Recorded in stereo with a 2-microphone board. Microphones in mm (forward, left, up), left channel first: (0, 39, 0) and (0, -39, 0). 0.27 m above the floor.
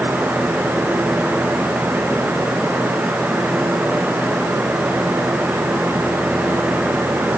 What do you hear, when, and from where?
Only background noise.